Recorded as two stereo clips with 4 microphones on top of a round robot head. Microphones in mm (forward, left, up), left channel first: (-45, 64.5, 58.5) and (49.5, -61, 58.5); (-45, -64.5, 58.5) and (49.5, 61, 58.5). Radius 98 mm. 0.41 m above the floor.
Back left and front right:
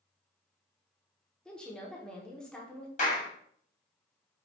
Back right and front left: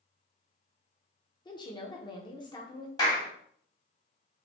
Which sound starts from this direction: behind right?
A woman speaking, at 1.4 s.